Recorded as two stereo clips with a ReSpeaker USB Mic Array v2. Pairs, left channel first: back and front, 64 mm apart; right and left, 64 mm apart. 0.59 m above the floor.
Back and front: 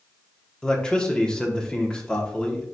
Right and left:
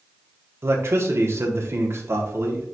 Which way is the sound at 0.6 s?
110° left.